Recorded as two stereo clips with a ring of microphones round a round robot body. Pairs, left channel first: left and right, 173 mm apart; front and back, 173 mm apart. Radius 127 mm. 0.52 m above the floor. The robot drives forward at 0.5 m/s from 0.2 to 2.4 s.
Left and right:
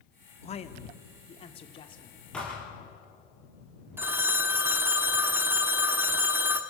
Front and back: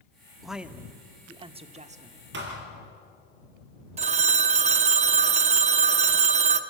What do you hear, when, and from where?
0.4 s a man speaking: 90° left, 0.9 m; by 2.2 s 150° left, 1.2 m
2.3 s a thud: 175° left, 3.5 m
4.0 s a phone ringing: 165° right, 0.7 m